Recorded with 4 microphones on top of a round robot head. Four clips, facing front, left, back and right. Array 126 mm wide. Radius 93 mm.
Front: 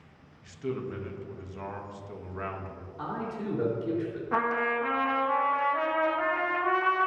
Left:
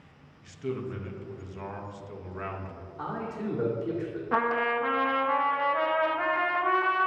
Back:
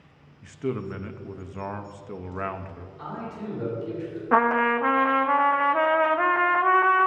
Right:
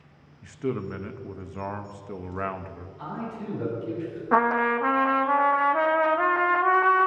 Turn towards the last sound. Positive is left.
turn(degrees=-140)